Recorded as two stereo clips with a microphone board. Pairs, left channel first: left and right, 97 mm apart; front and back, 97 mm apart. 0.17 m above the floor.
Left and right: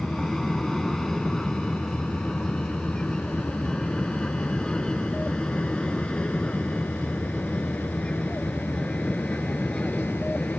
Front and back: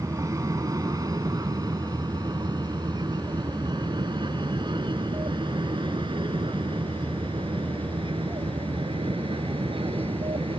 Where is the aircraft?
175° left; by 10.6 s 170° left.